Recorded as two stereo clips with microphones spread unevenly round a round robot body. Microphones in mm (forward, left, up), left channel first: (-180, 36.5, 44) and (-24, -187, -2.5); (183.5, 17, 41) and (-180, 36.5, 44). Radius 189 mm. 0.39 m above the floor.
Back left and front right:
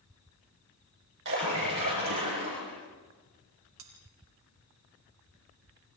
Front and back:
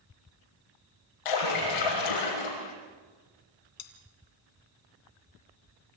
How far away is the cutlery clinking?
About 3 m.